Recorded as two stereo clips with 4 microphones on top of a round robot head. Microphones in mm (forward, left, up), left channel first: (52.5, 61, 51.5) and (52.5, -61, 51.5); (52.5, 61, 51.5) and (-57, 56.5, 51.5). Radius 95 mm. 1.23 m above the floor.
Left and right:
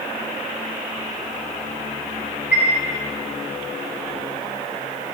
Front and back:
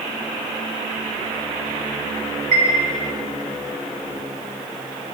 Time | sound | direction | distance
2.5 | a chime | 170° right | 3 m